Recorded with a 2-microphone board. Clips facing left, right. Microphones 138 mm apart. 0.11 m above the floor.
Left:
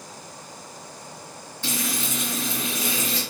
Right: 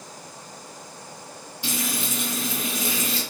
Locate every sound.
1.6 s frying: 10° right (ahead or behind), 1.5 m